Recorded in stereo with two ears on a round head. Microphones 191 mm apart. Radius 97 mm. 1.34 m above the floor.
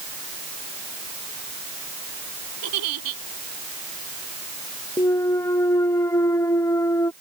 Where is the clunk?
15° left (ahead or behind).